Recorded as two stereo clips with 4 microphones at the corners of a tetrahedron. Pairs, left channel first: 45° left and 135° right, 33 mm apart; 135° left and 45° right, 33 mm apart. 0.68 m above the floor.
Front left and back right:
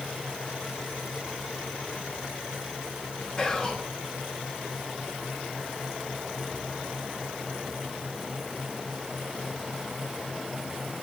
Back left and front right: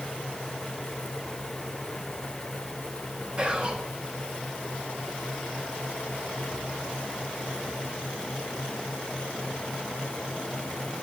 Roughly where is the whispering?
Ahead.